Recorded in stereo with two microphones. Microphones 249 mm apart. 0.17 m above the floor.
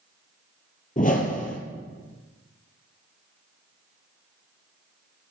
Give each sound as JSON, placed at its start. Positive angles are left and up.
{"t": 1.0, "sound": "a whoosh", "side_deg": 30, "distance_m": 0.9}